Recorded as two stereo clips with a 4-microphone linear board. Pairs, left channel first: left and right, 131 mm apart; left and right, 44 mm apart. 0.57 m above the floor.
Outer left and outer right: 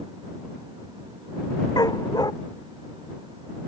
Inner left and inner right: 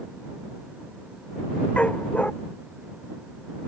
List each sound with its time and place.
1.8 s a dog barking: 30° left (ahead or behind)